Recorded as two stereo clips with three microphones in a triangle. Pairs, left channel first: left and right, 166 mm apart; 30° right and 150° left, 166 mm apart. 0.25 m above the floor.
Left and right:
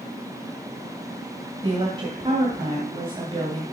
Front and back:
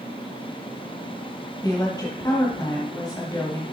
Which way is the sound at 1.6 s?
75° right.